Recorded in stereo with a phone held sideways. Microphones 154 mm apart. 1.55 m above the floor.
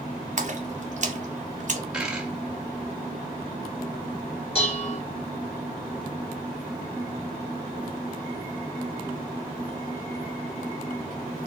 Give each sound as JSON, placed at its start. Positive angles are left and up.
{"t": 0.4, "sound": "a splash", "side_deg": -55, "distance_m": 0.8}
{"t": 1.9, "sound": "a dropped coin", "side_deg": -5, "distance_m": 1.2}
{"t": 4.5, "sound": "dishes clattering", "side_deg": 40, "distance_m": 1.9}